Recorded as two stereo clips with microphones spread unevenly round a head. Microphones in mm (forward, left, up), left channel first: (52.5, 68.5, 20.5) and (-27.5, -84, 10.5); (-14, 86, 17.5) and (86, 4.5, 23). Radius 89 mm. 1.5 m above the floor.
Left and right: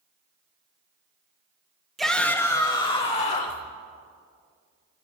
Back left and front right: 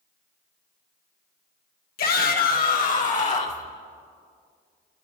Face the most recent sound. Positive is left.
turn(degrees=110)